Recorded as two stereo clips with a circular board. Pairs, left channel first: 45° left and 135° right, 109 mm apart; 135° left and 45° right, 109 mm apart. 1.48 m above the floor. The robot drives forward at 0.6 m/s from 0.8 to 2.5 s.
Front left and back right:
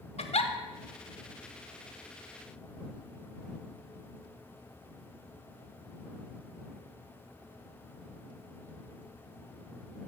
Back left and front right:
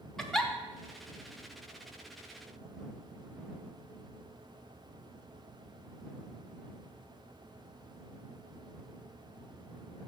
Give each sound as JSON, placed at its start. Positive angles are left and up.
{"t": 0.2, "sound": "a giggle", "azimuth_deg": 50, "distance_m": 0.6}